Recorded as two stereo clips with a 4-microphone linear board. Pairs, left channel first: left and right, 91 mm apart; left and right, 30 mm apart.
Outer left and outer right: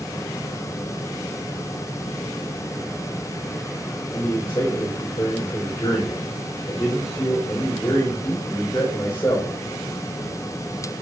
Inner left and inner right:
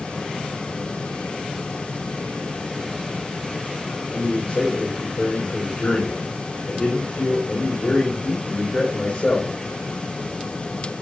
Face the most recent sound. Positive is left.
turn(degrees=40)  # may be behind; listen again after turning